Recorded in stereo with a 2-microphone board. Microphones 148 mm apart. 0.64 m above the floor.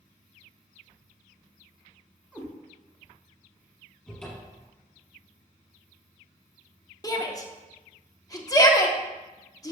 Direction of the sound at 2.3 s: 10° right (ahead or behind).